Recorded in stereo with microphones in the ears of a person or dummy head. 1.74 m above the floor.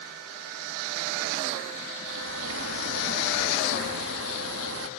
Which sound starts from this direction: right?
A bird, at 2.1 s.